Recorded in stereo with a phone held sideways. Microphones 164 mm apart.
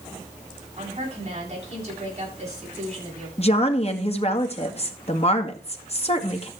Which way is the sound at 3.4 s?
40° left (ahead or behind).